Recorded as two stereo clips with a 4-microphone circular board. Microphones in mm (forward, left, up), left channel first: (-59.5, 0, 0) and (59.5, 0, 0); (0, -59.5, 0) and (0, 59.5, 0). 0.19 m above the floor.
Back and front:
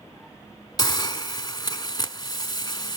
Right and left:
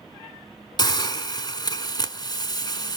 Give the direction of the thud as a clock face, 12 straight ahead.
No thud in this recording.